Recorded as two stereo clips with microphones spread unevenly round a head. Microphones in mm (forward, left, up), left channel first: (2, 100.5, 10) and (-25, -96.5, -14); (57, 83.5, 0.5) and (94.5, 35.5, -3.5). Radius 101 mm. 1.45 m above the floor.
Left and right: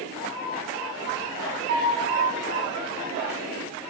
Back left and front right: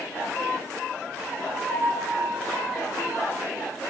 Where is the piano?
140° right, 1.0 m.